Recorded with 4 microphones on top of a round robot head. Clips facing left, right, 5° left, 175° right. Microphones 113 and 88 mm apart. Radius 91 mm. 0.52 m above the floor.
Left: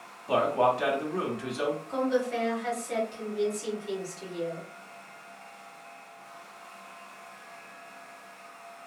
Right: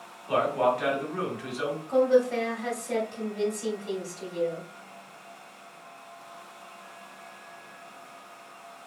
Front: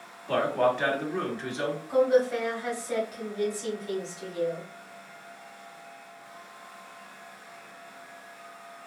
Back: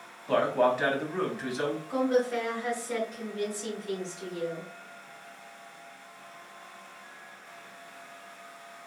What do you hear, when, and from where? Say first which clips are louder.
0.3 s a man speaking: even, even; 105° left, 1.2 m
1.9 s a woman speaking: right 9 dB, front 5 dB; 75° right, 1.8 m